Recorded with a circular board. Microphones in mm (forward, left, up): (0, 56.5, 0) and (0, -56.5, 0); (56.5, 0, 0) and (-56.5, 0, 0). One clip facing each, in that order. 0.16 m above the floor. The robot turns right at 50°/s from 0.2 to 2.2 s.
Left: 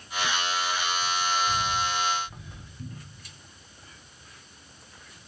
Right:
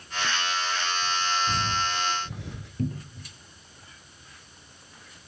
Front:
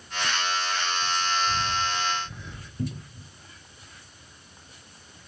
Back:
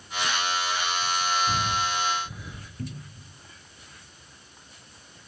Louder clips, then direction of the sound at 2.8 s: Right 13 dB, front 6 dB; 70° right.